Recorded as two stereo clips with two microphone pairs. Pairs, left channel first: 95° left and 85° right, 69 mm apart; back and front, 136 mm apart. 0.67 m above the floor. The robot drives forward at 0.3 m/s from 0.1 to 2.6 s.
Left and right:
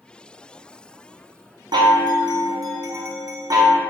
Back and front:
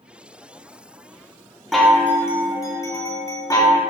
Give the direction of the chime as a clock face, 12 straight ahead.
3 o'clock.